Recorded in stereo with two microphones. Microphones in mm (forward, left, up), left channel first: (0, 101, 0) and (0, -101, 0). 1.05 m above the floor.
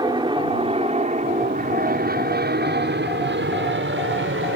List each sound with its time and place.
0.0 s an aircraft: 20° right (ahead or behind); by 4.6 s 70° right (ahead or behind)